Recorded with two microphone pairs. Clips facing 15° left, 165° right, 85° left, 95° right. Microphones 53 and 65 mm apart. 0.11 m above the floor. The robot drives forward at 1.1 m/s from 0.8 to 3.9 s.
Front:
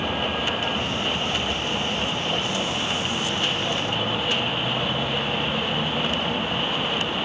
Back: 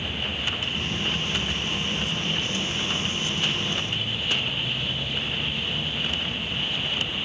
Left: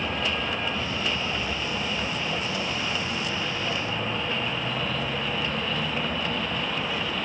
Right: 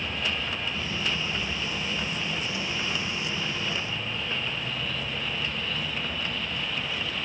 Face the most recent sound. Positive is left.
turn(degrees=25)